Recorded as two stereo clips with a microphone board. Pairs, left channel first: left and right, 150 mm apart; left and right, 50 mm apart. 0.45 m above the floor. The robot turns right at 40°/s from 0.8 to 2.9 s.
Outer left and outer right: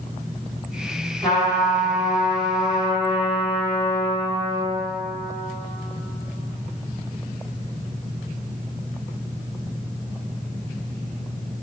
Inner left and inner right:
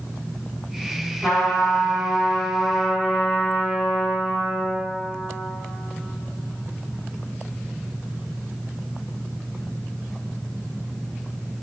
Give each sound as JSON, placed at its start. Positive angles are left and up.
{"t": 1.2, "sound": "a trumpet", "azimuth_deg": -175, "distance_m": 1.2}